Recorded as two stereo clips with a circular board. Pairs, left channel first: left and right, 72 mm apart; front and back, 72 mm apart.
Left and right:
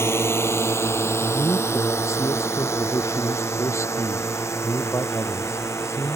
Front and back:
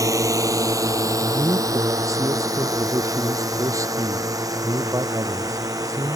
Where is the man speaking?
140° left.